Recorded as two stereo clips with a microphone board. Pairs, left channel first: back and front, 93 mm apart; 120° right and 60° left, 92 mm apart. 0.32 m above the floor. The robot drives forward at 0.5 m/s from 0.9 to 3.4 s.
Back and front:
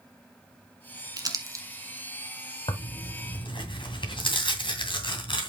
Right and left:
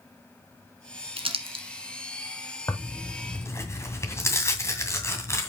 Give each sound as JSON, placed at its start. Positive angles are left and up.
{"t": 1.2, "sound": "crumpling", "azimuth_deg": 45, "distance_m": 1.5}
{"t": 2.7, "sound": "tearing paper", "azimuth_deg": -175, "distance_m": 1.8}